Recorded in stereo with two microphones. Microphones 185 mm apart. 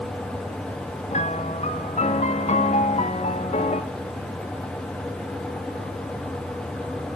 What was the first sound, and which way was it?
A piano, 35° left (ahead or behind).